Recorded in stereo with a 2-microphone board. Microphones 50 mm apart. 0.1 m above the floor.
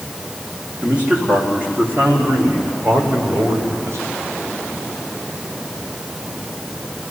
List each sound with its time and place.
0.8 s a man speaking: 25° right (ahead or behind), 6.5 m; by 4.2 s 70° right (ahead or behind), 6 m